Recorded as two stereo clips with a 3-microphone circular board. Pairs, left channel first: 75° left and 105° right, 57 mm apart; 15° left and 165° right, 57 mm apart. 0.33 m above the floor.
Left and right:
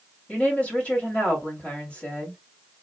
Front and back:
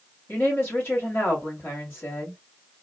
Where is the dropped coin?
I don't hear a dropped coin.